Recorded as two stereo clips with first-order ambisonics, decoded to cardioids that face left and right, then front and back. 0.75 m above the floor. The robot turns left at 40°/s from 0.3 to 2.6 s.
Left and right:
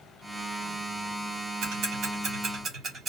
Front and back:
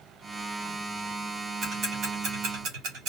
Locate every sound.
1.6 s ticking: 115° right, 1.4 m; by 3.1 s 155° right, 1.4 m